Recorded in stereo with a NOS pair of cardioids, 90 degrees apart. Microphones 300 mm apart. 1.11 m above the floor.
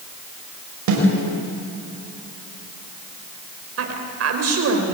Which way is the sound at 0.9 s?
70° right.